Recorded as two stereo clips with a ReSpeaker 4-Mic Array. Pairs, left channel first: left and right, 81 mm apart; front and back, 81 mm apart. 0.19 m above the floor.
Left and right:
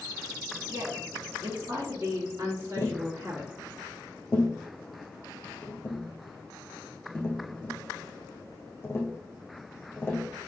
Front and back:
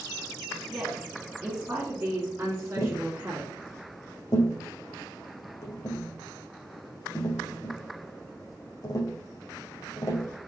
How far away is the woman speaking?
About 2 m.